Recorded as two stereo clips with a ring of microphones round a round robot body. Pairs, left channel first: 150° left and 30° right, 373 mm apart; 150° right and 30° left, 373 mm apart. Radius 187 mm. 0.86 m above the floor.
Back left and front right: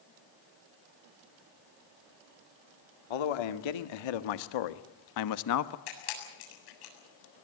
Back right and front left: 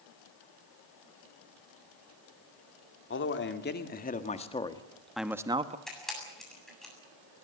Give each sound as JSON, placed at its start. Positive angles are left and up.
{"t": 3.1, "sound": "a man speaking", "azimuth_deg": 150, "distance_m": 2.0}
{"t": 5.9, "sound": "a camera shutter", "azimuth_deg": 120, "distance_m": 7.5}